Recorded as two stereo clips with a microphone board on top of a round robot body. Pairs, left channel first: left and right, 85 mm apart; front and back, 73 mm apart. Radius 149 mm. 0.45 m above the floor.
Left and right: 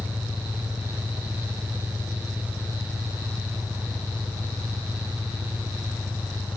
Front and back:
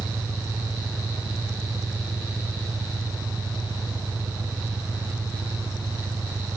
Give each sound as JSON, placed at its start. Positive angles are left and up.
{"t": 0.0, "sound": "an engine running", "azimuth_deg": 150}